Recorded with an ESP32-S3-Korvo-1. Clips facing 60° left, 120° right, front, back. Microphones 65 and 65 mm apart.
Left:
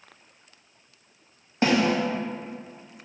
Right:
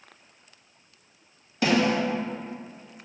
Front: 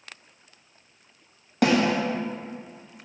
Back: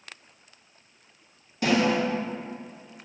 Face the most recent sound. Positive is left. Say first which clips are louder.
# left 1 dB, front 2 dB
turn(degrees=5)